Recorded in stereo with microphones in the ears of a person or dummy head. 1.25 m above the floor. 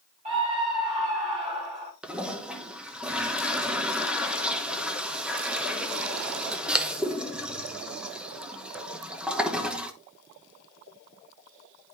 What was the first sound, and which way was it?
A scream, 35° right (ahead or behind).